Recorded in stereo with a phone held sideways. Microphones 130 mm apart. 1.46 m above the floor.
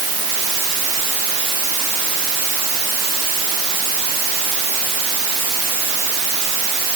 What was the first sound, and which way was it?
Only background noise.